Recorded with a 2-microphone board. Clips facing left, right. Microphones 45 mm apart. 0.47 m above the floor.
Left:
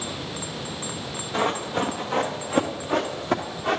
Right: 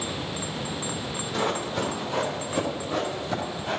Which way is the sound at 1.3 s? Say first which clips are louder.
Left 3 dB; 20° left (ahead or behind).